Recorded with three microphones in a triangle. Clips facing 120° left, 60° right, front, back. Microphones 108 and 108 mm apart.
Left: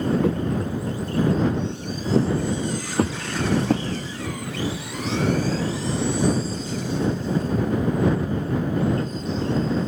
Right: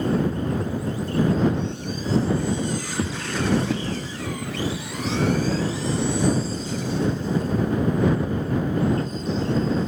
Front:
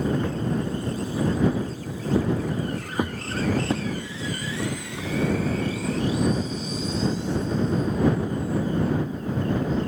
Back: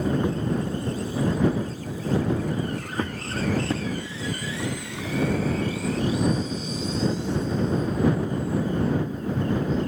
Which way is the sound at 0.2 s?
105° left.